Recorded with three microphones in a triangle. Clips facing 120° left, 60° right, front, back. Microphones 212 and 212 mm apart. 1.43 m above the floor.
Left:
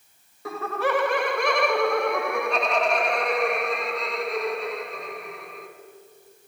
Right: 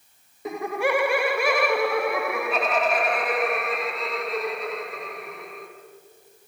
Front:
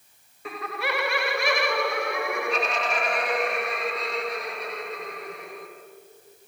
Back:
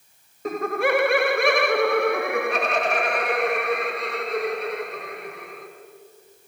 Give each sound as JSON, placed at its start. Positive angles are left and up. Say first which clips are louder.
{"t": 0.5, "sound": "laughter", "louder": "right 1 dB, back 9 dB", "azimuth_deg": -130, "distance_m": 0.7}